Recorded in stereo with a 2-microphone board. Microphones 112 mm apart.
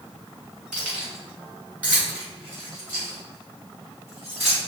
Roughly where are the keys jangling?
Centre.